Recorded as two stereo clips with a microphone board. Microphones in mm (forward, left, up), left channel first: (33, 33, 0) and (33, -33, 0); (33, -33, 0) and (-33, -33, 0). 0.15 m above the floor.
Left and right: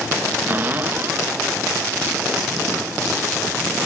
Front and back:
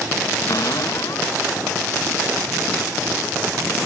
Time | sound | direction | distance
0.5 | a cupboard door | 30° right | ?